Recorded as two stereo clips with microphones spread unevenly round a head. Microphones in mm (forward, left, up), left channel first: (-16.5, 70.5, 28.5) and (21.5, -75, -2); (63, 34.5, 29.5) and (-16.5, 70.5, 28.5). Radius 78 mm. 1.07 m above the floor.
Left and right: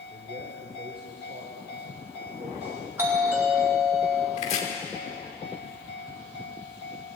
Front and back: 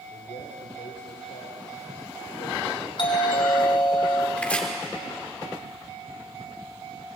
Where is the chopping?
55° left, 3 m.